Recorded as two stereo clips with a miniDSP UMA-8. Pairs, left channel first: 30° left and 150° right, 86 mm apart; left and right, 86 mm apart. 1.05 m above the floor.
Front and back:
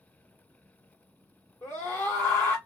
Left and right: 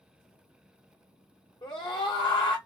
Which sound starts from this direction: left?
A scream, at 1.6 s.